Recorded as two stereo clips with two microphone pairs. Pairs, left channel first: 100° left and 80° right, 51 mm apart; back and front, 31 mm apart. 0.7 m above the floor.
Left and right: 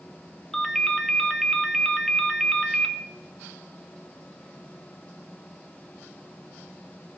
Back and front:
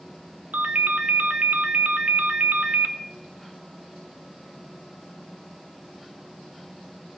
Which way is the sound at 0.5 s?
20° left.